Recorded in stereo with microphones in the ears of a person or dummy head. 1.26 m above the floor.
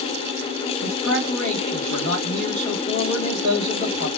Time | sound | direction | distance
0.8 | a man speaking | 70° left (ahead or behind) | 1.2 m